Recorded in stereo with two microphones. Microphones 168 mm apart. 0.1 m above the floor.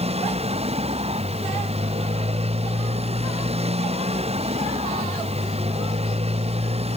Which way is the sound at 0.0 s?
40° right (ahead or behind).